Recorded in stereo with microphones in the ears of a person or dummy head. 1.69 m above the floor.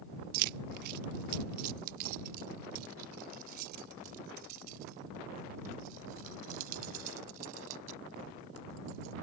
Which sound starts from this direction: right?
Keys jangling, at 0.3 s.